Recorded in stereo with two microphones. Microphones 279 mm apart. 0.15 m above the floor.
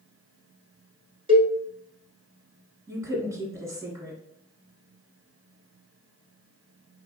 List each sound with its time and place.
1.3 s a cowbell: 20° right (ahead or behind), 0.7 m
2.9 s a woman speaking: 10° right (ahead or behind), 1.4 m